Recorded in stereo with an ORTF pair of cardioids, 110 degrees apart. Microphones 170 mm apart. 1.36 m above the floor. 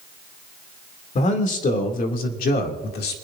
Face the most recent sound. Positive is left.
turn(degrees=70)